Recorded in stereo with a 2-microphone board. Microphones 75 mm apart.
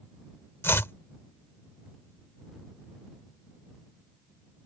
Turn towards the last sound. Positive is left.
turn(degrees=35)  # may be behind; listen again after turning